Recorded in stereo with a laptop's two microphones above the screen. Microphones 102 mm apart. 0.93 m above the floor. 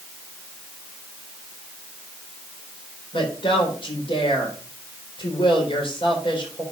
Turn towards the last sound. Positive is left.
turn(degrees=55)  # may be behind; listen again after turning